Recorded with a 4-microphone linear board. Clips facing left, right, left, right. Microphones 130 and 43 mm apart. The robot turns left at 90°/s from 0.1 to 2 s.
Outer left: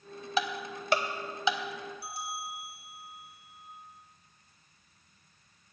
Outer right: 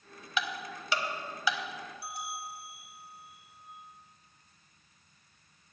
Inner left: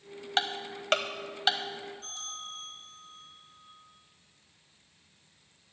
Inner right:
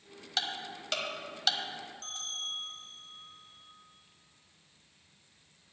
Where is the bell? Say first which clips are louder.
Outer left 1 dB, inner right 3 dB; 70° right (ahead or behind), 2 m.